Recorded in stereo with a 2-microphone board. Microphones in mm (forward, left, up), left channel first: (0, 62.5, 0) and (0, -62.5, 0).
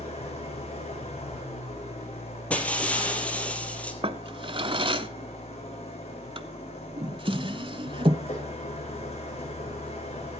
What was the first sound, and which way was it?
An engine running, 55° left (ahead or behind).